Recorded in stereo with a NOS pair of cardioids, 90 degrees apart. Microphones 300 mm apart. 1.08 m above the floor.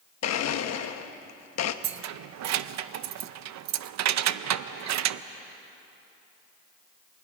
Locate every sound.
0.2 s a blender: 60° left, 1.1 m
1.8 s keys jangling: 65° right, 0.6 m